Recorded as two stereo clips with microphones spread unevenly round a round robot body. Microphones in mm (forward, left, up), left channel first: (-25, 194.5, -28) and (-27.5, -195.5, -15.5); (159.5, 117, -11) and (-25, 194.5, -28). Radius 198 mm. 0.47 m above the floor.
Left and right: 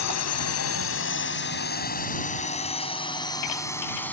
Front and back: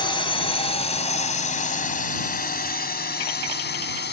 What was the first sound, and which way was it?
A drone, 40° left.